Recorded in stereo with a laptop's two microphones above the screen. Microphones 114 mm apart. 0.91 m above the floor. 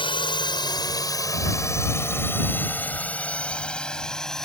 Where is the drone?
45° left (ahead or behind); by 4.5 s 5° left (ahead or behind).